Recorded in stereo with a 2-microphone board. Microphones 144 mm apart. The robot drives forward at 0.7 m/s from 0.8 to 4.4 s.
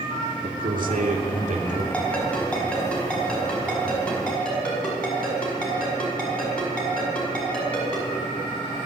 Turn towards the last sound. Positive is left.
turn(degrees=5)  # may be behind; listen again after turning